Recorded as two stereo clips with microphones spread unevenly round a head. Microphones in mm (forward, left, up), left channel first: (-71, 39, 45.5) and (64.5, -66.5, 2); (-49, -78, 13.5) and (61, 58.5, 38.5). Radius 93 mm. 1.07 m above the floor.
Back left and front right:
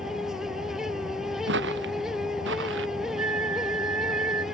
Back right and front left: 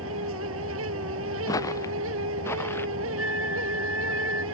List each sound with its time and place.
0.0 s a fan: 50° left
1.5 s footsteps: 55° right; by 2.9 s 50° right
3.2 s a flute: 25° right